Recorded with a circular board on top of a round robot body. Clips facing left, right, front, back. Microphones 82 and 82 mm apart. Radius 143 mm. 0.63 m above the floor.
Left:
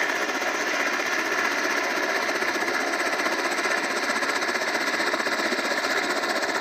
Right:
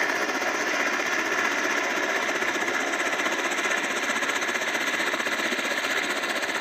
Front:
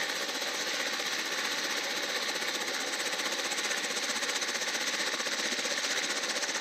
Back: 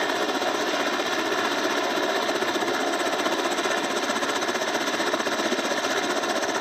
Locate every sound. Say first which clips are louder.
0.0 s a helicopter: even, back 12 dB; straight behind; by 6.6 s 160° left